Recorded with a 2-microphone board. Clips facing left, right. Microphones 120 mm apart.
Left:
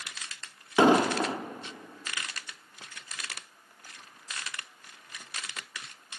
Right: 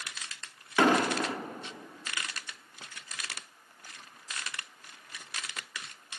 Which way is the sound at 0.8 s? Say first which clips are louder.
Left 4 dB; 25° left (ahead or behind).